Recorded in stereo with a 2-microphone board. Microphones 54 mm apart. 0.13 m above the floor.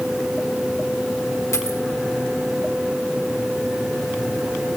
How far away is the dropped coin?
About 3 m.